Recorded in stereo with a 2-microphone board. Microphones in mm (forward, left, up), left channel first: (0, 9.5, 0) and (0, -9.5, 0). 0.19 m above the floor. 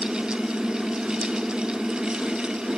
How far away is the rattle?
I don't hear a rattle.